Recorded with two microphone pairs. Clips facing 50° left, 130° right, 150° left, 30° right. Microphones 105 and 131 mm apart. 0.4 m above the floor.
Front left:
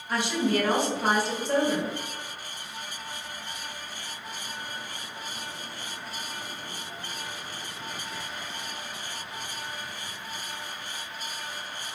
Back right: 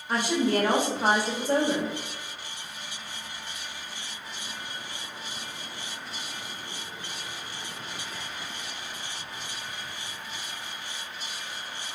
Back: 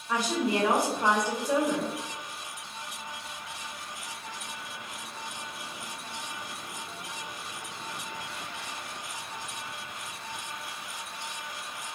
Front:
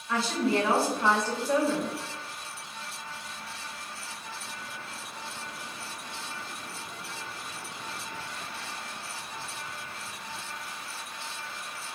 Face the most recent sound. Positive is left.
turn(degrees=-145)